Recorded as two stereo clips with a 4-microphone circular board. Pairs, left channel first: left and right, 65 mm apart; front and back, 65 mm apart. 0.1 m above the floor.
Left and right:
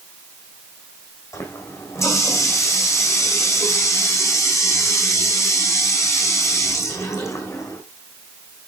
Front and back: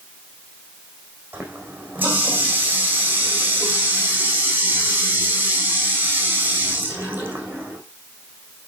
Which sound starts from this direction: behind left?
A running tap, at 1.3 s.